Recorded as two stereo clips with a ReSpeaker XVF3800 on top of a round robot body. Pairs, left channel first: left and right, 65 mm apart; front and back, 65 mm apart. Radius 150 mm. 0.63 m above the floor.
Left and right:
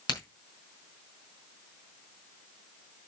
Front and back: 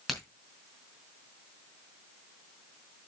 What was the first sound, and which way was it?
A crack, 90° left.